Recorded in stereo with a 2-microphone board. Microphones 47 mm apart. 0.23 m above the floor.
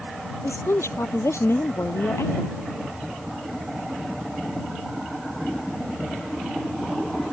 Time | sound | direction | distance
0.4 | a woman speaking | 75° left (ahead or behind) | ?